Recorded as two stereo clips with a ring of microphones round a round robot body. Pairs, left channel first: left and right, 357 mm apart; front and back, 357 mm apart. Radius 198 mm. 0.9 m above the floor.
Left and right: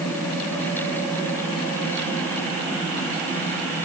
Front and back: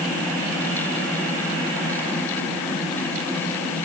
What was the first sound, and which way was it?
Only background noise.